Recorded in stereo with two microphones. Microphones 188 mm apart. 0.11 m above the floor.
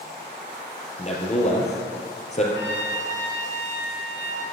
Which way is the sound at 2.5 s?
80° left.